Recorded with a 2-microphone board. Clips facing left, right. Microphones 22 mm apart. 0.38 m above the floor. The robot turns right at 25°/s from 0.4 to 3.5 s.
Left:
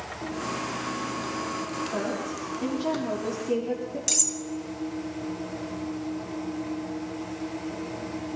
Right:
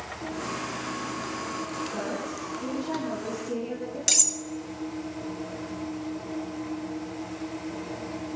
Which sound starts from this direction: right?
Cutlery clinking, at 4.1 s.